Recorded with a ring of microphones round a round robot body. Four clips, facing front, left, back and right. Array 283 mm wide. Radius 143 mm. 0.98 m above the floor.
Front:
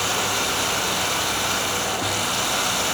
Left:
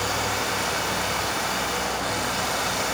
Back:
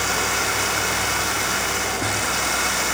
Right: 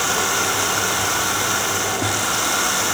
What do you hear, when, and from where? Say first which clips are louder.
0.0 s running water: right 5 dB, back 1 dB; 100° right, 1.1 m